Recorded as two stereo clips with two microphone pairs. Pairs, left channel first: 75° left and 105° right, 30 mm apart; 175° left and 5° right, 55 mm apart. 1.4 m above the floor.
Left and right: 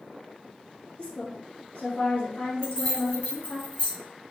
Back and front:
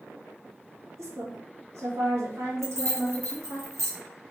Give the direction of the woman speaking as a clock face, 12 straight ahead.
11 o'clock.